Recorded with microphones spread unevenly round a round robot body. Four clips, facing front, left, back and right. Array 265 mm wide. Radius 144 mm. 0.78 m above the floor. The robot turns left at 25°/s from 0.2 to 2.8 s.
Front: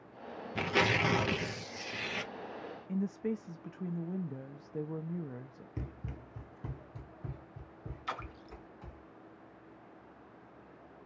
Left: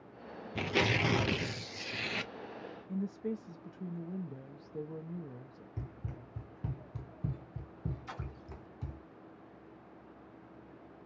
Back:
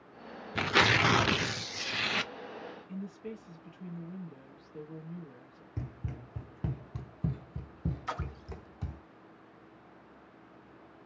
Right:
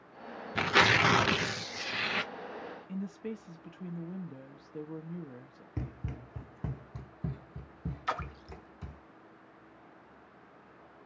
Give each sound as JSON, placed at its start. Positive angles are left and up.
{"t": 0.6, "sound": "tearing paper", "azimuth_deg": -100, "distance_m": 0.6}
{"t": 2.9, "sound": "a woman speaking", "azimuth_deg": -25, "distance_m": 0.9}
{"t": 5.8, "sound": "running footsteps", "azimuth_deg": -90, "distance_m": 0.8}
{"t": 8.1, "sound": "a splash", "azimuth_deg": -105, "distance_m": 1.0}